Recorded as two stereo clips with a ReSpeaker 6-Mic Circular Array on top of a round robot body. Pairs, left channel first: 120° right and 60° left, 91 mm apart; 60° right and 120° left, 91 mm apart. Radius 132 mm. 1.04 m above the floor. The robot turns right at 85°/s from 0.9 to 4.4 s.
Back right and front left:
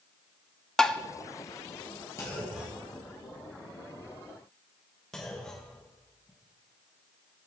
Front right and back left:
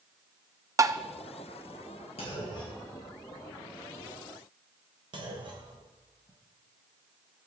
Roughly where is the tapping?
Behind.